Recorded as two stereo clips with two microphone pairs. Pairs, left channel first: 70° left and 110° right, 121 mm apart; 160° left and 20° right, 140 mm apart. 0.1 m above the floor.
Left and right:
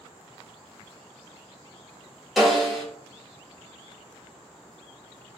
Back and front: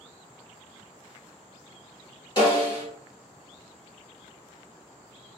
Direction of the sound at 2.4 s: 160° left.